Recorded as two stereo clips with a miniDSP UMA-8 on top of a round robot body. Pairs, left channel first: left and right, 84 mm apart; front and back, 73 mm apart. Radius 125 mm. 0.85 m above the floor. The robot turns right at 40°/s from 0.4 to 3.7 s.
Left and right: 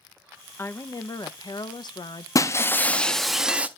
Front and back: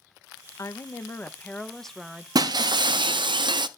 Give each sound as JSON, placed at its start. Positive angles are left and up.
{"t": 0.6, "sound": "a woman speaking", "azimuth_deg": 30, "distance_m": 0.8}
{"t": 2.4, "sound": "breaking glass", "azimuth_deg": 145, "distance_m": 0.6}